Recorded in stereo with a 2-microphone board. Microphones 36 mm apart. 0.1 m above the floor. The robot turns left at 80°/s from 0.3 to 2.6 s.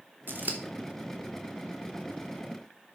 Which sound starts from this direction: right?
Scissors, at 0.3 s.